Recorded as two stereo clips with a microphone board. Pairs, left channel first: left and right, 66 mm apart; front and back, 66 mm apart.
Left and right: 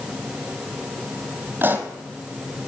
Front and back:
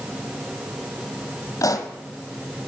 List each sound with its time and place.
1.6 s a pop: 35° right, 1.2 m